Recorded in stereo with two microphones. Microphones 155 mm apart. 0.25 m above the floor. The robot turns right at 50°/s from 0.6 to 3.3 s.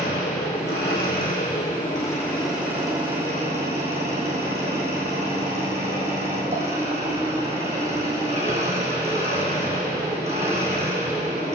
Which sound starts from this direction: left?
An engine running, at 0.0 s.